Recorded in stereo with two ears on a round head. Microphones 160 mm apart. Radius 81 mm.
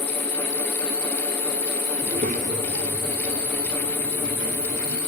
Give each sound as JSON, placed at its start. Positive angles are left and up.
{"t": 2.0, "sound": "a child speaking", "side_deg": -35, "distance_m": 0.6}